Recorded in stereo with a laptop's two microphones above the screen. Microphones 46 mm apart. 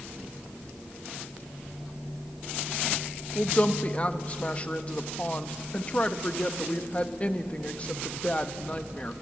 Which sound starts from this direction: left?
A woman speaking, at 3.4 s.